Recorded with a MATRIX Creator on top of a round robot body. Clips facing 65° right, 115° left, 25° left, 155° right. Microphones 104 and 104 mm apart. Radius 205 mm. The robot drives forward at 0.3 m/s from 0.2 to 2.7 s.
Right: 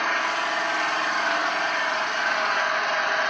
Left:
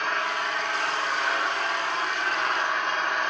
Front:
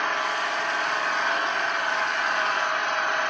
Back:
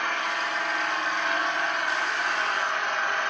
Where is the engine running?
45° right, 8 m; by 3.3 s 50° right, 7.5 m.